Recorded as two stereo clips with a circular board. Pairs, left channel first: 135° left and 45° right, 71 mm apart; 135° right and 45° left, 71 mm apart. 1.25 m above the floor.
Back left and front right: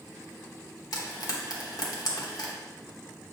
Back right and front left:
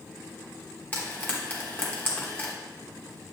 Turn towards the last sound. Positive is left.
turn(degrees=160)